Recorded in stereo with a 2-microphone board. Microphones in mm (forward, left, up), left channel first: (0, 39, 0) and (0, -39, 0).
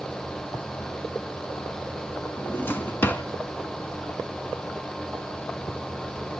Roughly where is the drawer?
Left.